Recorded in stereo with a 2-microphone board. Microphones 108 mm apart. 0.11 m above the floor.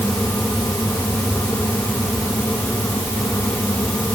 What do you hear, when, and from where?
Only background noise.